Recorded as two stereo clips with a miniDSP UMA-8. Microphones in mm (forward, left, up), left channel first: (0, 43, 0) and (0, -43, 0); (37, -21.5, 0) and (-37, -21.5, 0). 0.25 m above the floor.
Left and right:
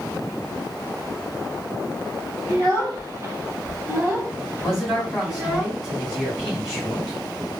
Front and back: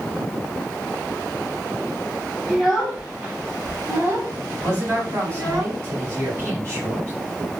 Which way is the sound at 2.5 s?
95° right.